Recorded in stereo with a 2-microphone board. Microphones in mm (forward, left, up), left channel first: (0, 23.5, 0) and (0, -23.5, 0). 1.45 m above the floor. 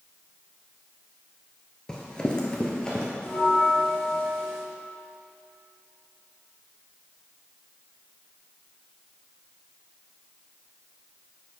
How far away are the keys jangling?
I don't hear keys jangling.